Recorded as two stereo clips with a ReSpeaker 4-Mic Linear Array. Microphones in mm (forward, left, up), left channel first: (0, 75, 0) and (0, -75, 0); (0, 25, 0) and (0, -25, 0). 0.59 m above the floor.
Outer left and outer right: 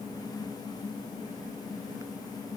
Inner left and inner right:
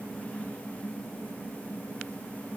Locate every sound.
Only background noise.